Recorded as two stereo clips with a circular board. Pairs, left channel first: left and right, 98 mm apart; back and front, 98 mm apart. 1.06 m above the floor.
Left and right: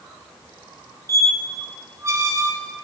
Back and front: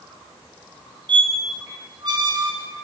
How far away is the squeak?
About 0.8 m.